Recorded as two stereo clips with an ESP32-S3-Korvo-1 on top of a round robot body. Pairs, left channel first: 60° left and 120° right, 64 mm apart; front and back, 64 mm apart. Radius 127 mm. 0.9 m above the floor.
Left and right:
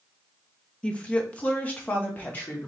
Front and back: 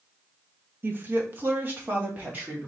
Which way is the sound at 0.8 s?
130° left.